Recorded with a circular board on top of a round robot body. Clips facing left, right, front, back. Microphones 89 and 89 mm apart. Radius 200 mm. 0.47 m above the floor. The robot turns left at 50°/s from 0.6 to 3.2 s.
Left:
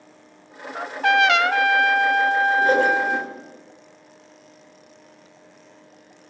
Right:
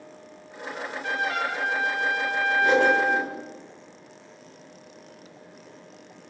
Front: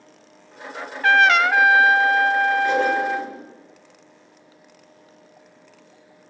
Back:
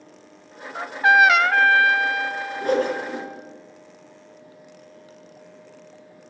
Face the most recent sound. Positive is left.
turn(degrees=110)